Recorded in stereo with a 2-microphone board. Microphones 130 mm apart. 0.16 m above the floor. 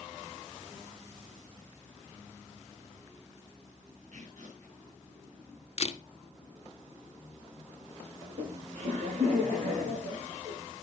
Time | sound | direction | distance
4.1 | tearing paper | 60° right (ahead or behind) | 8 m
5.8 | a camera shutter | 45° left (ahead or behind) | 1.0 m
8.2 | laughter | 55° right (ahead or behind) | 5.5 m